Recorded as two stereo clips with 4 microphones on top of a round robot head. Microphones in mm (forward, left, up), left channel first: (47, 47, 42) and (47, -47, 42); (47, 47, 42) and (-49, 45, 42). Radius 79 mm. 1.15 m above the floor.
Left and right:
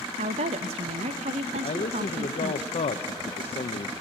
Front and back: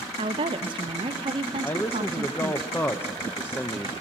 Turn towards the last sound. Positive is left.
turn(degrees=70)